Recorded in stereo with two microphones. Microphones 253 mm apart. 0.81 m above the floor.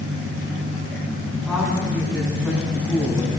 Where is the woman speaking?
Centre (ahead or behind), 7 m; by 3.3 s 10° right (ahead or behind), 6 m.